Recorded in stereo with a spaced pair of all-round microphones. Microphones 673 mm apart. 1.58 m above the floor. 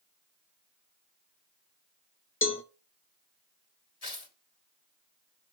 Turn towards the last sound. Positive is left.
turn(degrees=60)  # may be behind; listen again after turning